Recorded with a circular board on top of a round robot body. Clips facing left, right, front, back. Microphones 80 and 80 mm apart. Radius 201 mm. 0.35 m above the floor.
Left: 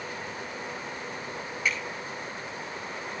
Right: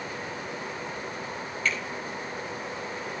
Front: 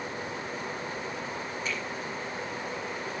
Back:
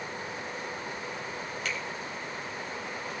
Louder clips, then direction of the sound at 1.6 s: Even, even; 170° left.